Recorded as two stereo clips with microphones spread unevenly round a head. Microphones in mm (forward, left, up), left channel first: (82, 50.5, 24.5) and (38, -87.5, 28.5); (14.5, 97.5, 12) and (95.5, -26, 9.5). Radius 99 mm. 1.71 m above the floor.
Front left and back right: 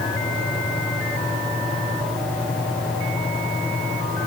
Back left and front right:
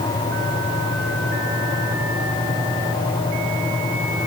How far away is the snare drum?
No snare drum in this recording.